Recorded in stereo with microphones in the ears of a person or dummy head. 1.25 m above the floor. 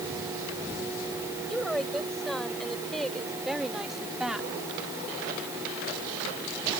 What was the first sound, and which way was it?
A woman speaking, centre (ahead or behind).